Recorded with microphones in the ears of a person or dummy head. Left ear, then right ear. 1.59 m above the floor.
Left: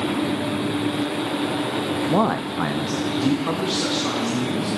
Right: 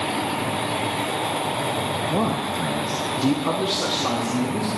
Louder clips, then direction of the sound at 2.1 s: Left 2 dB; 85° left.